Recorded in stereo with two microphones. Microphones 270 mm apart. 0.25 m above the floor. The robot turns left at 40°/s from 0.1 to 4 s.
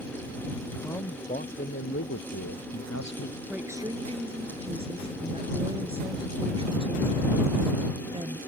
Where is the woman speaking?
Centre (ahead or behind); by 8.4 s 20° right (ahead or behind).